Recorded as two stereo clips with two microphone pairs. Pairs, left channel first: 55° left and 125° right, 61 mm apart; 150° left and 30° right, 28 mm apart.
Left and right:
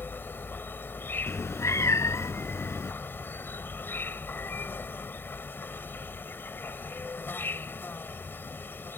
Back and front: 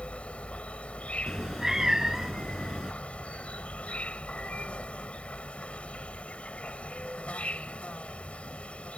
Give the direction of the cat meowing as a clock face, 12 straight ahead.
11 o'clock.